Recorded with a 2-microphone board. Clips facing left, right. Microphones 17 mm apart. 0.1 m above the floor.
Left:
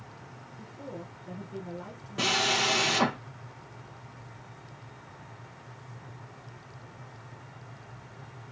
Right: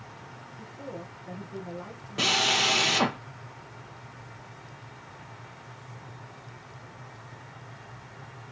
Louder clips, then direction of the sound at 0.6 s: Right 1 dB; centre (ahead or behind).